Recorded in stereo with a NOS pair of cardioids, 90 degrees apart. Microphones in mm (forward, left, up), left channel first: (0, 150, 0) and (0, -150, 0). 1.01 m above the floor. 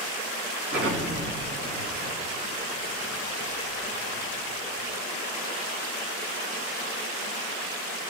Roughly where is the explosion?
Ahead right.